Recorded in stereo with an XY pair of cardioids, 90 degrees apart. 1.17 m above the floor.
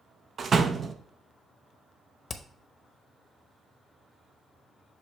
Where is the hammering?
40° left, 0.7 m.